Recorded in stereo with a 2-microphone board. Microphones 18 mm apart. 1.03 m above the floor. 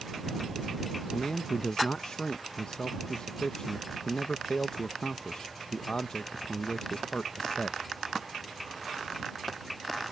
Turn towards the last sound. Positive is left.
turn(degrees=60)  # may be behind; listen again after turning